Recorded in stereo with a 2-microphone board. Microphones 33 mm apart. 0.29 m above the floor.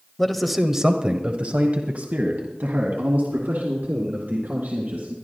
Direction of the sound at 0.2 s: 10° left (ahead or behind).